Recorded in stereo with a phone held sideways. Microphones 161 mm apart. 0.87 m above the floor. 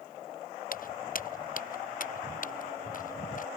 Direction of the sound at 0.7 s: 60° left (ahead or behind).